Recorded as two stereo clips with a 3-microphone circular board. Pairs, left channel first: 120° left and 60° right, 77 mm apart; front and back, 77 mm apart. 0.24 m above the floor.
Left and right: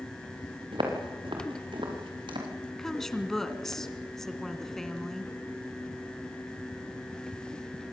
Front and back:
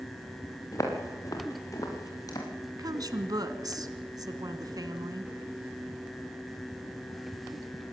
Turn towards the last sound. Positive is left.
turn(degrees=-155)